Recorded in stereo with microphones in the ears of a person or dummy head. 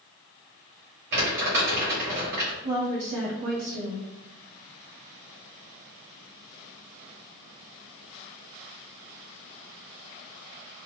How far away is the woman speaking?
About 1.9 m.